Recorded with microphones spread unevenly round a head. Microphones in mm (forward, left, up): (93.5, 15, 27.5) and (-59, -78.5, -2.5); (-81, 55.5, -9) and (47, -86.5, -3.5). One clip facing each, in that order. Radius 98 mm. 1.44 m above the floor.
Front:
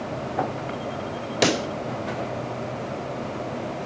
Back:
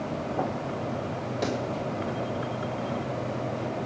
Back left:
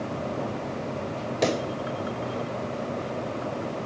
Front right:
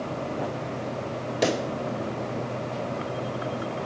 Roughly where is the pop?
Ahead left.